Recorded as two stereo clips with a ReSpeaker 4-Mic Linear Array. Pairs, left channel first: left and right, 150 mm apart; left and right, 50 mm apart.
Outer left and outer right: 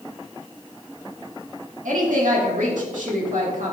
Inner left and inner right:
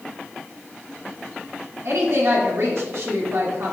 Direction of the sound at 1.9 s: 60° right (ahead or behind).